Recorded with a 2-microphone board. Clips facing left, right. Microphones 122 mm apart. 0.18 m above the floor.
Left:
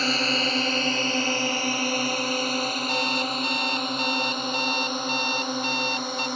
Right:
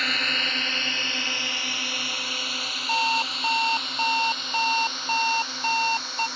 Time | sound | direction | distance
0.0 | a drone | 30° left (ahead or behind) | ?
2.9 | an alarm clock | 40° right (ahead or behind) | ?